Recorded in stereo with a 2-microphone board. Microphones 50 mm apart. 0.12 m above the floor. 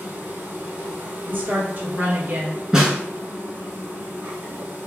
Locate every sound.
0.0 s an insect: 40° right (ahead or behind), 1.7 m
1.3 s a woman speaking: 40° right (ahead or behind), 1.7 m
2.7 s a snare drum: 15° right (ahead or behind), 1.2 m